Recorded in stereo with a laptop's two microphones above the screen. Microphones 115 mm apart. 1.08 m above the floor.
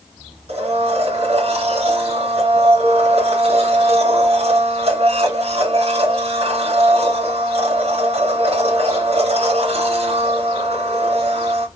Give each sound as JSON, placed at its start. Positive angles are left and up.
{"t": 0.5, "sound": "a blender", "side_deg": -60, "distance_m": 3.0}